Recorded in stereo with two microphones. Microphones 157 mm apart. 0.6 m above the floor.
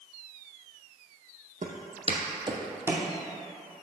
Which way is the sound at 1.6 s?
60° right (ahead or behind).